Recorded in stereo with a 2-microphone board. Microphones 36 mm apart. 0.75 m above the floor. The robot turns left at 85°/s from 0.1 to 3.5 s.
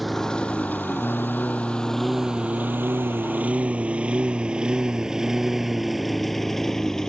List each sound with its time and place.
0.0 s a lawn mower: 5° left (ahead or behind); by 7.1 s 20° left (ahead or behind)